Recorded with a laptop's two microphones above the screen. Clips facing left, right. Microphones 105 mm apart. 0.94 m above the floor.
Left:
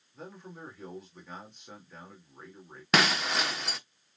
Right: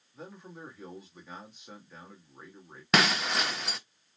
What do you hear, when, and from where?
0.1 s a man speaking: 5° right (ahead or behind), 2 m
2.9 s breaking glass: centre (ahead or behind), 0.7 m